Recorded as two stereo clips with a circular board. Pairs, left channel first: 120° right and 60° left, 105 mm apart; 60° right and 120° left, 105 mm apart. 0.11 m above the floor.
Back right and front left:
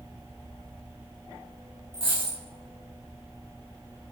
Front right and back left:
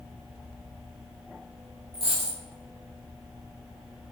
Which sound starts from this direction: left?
A dropped coin, at 1.9 s.